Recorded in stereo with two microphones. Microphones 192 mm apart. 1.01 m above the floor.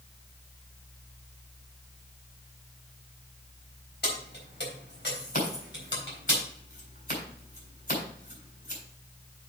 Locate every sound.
4.0 s keys jangling: 60° left (ahead or behind), 3.5 m; by 6.3 s 80° left, 3.5 m
5.3 s scissors: 50° left (ahead or behind), 4 m